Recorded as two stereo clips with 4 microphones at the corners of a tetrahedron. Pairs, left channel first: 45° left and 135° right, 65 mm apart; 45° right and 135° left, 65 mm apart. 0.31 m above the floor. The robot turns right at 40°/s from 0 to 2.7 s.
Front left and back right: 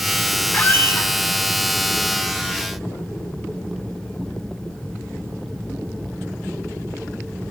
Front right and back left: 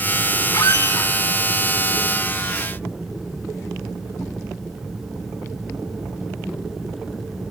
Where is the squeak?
20° right, 0.5 m; by 1.1 s 5° left, 0.5 m.